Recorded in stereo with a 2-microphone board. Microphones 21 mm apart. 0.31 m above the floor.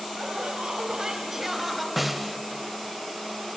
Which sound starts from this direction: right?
Laughter, at 0.2 s.